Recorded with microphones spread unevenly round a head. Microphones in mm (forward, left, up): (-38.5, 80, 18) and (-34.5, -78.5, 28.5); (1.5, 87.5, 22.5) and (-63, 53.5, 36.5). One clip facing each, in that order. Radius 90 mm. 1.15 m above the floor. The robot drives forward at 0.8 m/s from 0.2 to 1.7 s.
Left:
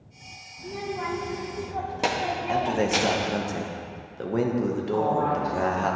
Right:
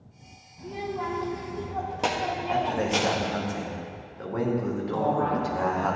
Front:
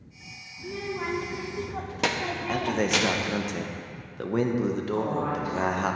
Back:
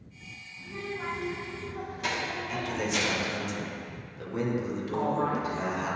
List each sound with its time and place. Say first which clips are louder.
0.6 s a child speaking: even, front 4 dB; 5° left, 1.6 m
2.5 s a man speaking: left 2 dB, front 7 dB; 35° left, 1.0 m
4.9 s a woman speaking: even, front 1 dB; 120° right, 2.5 m